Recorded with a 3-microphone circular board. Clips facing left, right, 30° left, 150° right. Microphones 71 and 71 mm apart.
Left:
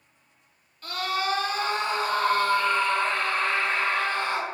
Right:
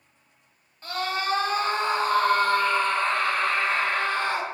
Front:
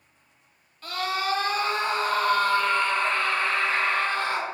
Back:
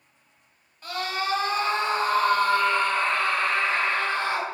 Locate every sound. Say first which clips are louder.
0.8 s a scream: even, front 1 dB; 95° right, 1.2 m; by 4.5 s 115° right, 2.5 m